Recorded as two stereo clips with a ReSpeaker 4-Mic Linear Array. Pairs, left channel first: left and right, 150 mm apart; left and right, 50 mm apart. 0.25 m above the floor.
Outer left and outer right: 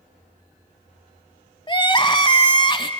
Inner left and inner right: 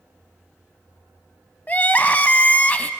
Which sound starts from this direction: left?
Crying, at 1.7 s.